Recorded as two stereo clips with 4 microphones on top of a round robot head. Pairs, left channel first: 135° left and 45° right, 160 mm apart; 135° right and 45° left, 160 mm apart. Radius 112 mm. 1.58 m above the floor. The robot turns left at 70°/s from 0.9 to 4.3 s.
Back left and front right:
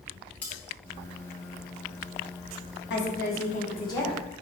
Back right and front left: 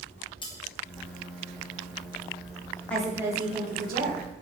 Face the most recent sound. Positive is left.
turn(degrees=45)